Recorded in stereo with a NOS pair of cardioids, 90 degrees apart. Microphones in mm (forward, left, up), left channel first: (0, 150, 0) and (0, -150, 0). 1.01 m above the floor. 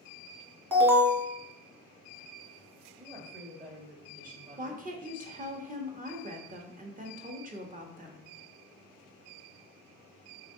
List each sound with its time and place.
0.7 s an alarm: 5° right, 1.4 m
3.0 s a woman speaking: 25° right, 1.8 m
4.6 s a woman speaking: 25° right, 1.2 m